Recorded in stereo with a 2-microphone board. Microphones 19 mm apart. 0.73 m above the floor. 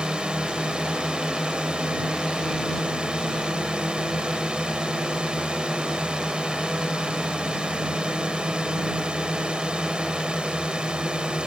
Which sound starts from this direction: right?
A drone, at 0.0 s.